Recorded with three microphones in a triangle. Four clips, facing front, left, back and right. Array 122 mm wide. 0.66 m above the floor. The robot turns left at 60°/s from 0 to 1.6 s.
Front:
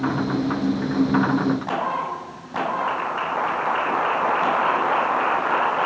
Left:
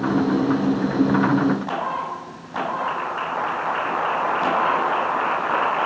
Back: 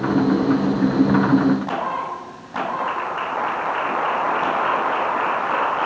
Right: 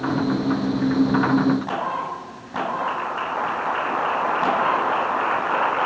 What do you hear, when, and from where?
Only background noise.